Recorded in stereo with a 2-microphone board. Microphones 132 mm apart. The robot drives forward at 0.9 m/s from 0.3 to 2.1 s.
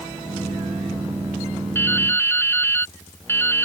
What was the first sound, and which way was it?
Dripping, 15° left (ahead or behind).